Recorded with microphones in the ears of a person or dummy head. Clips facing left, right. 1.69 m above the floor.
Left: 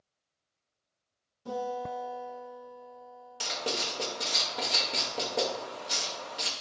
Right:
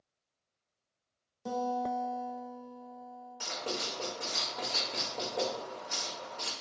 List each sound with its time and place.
1.4 s a guitar: 70° right (ahead or behind), 1.1 m
3.4 s writing: 50° left (ahead or behind), 0.7 m